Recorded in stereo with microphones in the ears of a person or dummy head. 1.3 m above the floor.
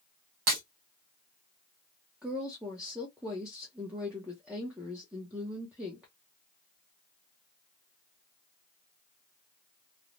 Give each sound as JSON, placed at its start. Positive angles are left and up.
{"t": 0.5, "sound": "breaking glass", "side_deg": -45, "distance_m": 1.2}
{"t": 2.2, "sound": "a woman speaking", "side_deg": -5, "distance_m": 0.7}